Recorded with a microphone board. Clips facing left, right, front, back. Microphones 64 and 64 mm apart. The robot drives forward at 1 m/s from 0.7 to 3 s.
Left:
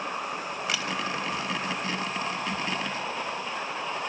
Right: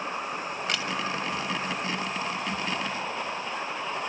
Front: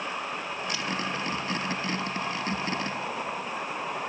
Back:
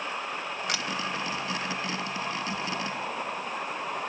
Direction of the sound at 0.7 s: 175° left.